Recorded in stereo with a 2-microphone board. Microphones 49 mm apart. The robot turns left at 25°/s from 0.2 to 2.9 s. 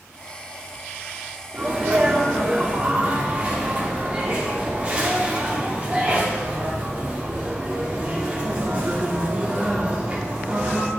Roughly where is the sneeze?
Right.